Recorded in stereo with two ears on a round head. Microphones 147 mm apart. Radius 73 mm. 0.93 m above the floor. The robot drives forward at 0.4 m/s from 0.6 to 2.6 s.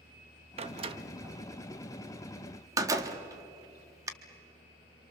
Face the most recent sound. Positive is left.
turn(degrees=-20)  # may be behind; listen again after turning